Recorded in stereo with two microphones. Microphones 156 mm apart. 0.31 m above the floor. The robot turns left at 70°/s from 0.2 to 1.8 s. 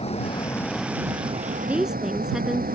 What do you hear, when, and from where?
0.0 s a vehicle: 40° left; by 2.8 s 70° right
1.6 s a woman speaking: 15° right (ahead or behind); by 2.7 s 5° right (ahead or behind)